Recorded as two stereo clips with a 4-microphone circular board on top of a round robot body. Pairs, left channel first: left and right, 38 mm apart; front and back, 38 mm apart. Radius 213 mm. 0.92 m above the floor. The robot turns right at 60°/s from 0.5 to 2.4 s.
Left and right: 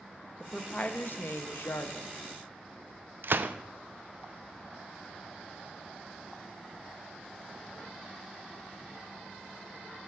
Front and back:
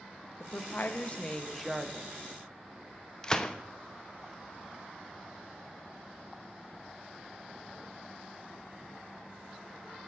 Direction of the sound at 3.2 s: 75° right.